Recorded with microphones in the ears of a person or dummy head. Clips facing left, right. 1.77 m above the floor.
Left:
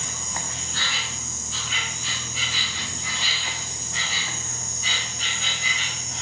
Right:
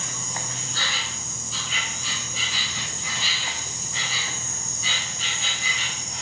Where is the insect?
80° right, 0.9 m.